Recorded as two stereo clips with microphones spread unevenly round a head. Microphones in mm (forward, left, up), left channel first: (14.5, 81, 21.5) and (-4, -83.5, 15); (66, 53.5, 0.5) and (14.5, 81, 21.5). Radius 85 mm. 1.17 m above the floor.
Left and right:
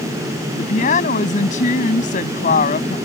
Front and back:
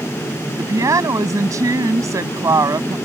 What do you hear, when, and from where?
0.6 s a woman speaking: 130° left